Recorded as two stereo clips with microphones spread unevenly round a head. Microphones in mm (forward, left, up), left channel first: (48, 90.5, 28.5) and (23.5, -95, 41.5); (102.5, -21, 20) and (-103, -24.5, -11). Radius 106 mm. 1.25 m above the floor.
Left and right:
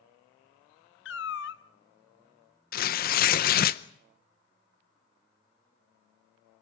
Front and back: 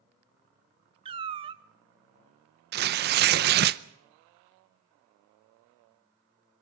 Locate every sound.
1.1 s a cat meowing: 110° left, 0.8 m
2.7 s tearing paper: 130° left, 0.7 m